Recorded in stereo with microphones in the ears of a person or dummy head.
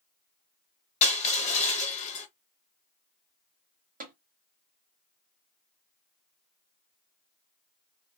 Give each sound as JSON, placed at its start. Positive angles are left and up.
{"t": 1.0, "sound": "crushing", "side_deg": 40, "distance_m": 1.2}
{"t": 4.0, "sound": "tapping", "side_deg": -40, "distance_m": 1.1}